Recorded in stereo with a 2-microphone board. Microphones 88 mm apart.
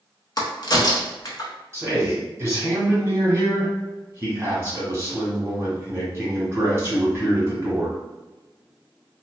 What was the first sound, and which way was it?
A crack, 50° left (ahead or behind).